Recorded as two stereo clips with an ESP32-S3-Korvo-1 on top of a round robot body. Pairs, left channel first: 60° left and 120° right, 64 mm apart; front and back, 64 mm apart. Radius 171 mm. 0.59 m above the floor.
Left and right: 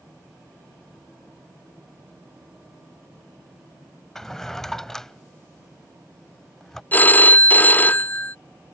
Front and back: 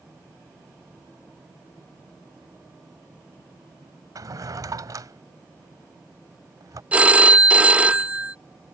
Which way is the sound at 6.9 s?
115° left.